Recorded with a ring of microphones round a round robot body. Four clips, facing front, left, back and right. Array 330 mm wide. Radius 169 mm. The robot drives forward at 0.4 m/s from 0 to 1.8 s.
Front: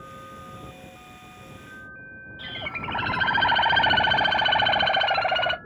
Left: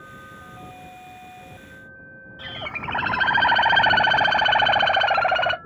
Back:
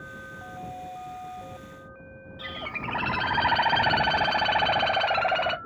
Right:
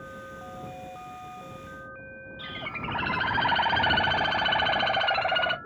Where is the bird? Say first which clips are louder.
Left 4 dB, even; 85° left, 0.5 m.